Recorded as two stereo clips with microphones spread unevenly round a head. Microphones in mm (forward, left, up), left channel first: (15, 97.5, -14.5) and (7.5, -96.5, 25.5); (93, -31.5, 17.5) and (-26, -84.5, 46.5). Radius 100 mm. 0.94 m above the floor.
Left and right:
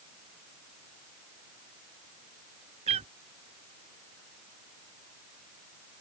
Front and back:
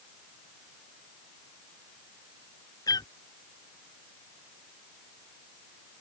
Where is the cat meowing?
40° right.